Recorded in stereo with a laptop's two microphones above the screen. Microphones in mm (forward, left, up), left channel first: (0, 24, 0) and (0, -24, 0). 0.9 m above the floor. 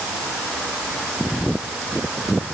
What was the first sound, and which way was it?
Only background noise.